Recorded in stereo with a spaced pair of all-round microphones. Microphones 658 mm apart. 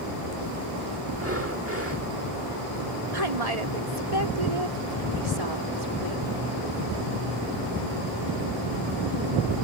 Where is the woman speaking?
75° right (ahead or behind).